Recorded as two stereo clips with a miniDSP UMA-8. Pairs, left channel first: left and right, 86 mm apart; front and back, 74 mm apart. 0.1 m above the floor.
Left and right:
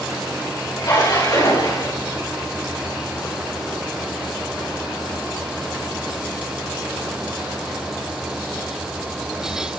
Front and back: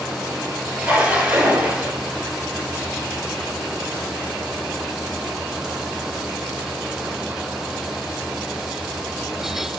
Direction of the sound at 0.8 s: 115° left.